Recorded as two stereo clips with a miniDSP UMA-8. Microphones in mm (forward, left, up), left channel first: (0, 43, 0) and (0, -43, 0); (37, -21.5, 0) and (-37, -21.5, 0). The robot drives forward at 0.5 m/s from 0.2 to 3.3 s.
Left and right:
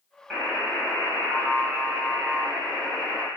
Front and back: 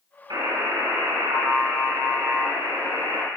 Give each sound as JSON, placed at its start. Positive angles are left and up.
{"t": 0.3, "sound": "a buzzer", "azimuth_deg": 180, "distance_m": 2.0}